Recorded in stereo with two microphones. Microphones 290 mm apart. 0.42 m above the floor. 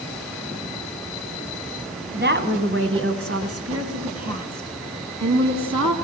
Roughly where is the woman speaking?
Right.